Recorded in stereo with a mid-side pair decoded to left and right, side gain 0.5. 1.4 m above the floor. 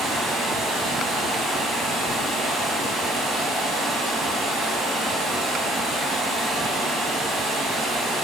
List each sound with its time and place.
0.0 s running water: 65° right, 0.9 m